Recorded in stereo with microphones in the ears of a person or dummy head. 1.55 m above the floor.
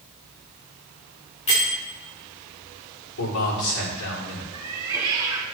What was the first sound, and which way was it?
A bell, 30° left (ahead or behind).